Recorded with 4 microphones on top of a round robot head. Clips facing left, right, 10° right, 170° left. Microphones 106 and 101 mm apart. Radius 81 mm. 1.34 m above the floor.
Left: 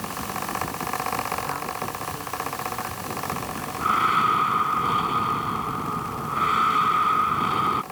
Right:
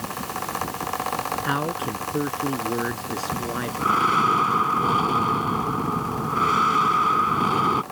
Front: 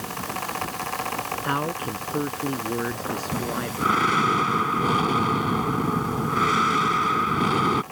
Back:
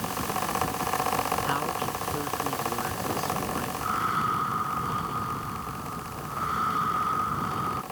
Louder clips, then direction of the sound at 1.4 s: Right 4 dB, front 2 dB; 65° right.